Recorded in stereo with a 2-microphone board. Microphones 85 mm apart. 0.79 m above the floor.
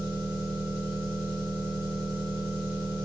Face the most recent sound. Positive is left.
turn(degrees=65)  # may be behind; listen again after turning